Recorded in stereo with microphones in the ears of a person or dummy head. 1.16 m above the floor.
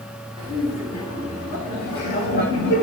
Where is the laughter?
25° left (ahead or behind), 4 m; by 2.8 s 55° left (ahead or behind), 4 m.